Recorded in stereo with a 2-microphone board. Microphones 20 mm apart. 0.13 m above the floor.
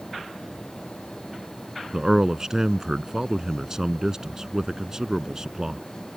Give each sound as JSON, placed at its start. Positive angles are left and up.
{"t": 1.9, "sound": "a man speaking", "side_deg": -30}